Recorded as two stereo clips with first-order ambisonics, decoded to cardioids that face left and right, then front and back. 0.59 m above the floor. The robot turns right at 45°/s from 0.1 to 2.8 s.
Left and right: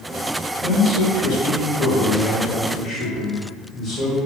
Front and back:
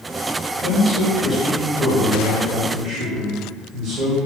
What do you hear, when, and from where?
0.6 s a man speaking: 60° left, 1.2 m; by 4.2 s 155° left, 1.2 m